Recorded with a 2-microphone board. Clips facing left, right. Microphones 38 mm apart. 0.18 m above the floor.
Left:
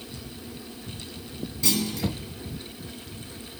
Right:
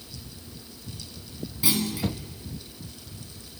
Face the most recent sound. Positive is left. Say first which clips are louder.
# even
turn(degrees=-15)  # may be behind; listen again after turning